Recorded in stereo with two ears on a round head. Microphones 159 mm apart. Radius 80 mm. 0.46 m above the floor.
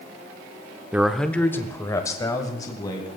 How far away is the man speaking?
About 0.7 m.